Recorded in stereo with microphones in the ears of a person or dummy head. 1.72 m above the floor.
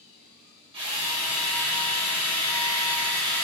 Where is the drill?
30° right (ahead or behind), 1.5 m.